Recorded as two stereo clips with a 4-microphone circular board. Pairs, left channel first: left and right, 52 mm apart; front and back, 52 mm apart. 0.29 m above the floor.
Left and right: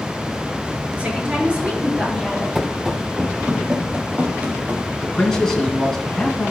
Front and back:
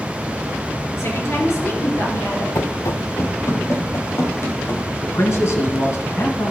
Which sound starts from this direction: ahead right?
A woman speaking, at 1.0 s.